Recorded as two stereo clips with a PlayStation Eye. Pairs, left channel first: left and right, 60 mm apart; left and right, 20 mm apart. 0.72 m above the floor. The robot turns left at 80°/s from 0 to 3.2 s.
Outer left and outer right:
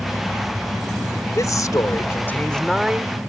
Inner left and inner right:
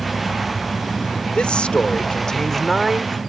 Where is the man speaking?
110° left; by 3.2 s 35° right.